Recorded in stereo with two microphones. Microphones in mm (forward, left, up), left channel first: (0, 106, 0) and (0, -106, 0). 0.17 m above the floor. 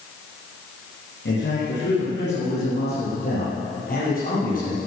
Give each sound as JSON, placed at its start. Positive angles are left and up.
{"t": 1.2, "sound": "a man speaking", "side_deg": 60, "distance_m": 4.5}